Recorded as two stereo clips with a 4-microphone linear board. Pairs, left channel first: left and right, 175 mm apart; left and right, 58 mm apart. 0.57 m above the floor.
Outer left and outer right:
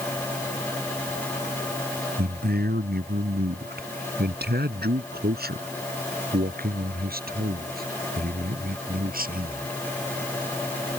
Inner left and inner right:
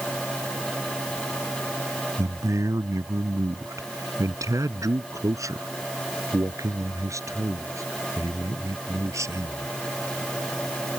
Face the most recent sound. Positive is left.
turn(degrees=-60)  # may be behind; listen again after turning